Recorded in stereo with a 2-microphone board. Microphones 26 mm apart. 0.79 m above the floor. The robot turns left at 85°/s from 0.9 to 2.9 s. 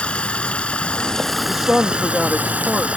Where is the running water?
45° left; by 3.0 s 125° right.